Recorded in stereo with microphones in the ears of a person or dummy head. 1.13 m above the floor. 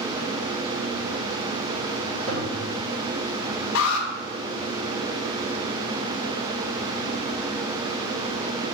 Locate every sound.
2.3 s a toilet flushing: 75° right (ahead or behind), 3 m
3.8 s an alarm: 85° left, 1.4 m